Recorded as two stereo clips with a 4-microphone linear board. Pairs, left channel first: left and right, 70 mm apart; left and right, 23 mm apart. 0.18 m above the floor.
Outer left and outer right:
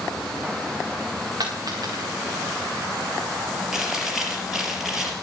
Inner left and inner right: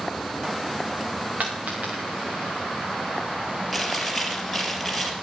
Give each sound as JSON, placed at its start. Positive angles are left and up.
{"t": 1.4, "sound": "a dropped coin", "side_deg": -80, "distance_m": 5.5}
{"t": 3.7, "sound": "chewing", "side_deg": -5, "distance_m": 4.0}